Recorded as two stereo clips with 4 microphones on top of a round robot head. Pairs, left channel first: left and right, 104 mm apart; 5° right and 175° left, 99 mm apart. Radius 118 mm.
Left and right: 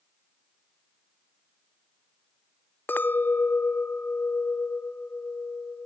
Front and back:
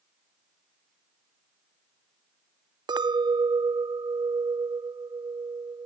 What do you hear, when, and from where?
2.9 s a clink: 155° left, 0.6 m